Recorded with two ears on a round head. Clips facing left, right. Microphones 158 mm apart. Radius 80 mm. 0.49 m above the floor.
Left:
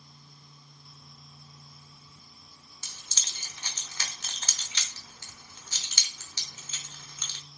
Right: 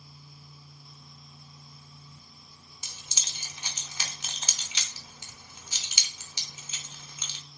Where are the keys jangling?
10° right (ahead or behind), 0.7 m.